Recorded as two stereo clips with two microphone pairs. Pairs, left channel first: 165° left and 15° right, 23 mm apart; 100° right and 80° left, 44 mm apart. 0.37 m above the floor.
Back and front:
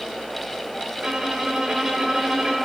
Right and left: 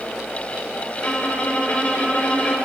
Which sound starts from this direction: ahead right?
A violin, at 1.0 s.